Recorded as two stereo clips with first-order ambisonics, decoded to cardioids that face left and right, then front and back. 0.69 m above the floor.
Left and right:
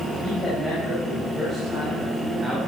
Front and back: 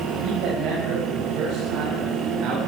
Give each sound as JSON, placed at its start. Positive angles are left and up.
{"t": 0.2, "sound": "a man speaking", "azimuth_deg": 165, "distance_m": 4.5}